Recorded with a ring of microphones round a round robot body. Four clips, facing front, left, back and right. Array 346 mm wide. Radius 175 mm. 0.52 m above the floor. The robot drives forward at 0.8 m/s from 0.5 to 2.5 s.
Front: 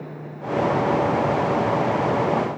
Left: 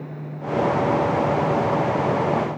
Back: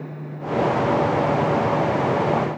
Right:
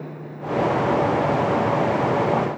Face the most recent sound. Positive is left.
No sound to turn to.